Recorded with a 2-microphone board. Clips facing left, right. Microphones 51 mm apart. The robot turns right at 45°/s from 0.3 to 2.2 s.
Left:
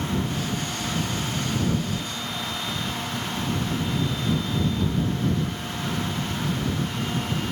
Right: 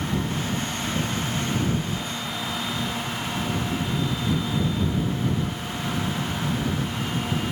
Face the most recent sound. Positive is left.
No sound to turn to.